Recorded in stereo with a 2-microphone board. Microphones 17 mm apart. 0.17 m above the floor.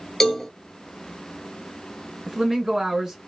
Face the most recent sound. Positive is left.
turn(degrees=-35)  # may be behind; listen again after turning